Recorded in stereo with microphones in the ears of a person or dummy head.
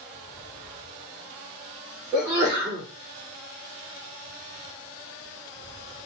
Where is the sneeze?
15° right (ahead or behind), 2.5 m.